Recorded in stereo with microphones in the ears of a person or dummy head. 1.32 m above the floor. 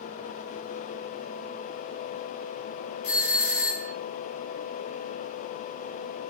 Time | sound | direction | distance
3.0 | a doorbell | 65° left (ahead or behind) | 2.5 m